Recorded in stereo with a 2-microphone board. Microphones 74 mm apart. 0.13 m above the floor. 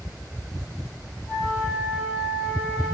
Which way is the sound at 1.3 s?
25° right (ahead or behind).